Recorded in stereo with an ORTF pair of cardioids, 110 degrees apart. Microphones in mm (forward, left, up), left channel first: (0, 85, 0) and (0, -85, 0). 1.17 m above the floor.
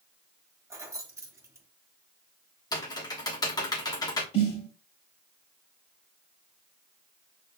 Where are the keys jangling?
20° right, 1.1 m.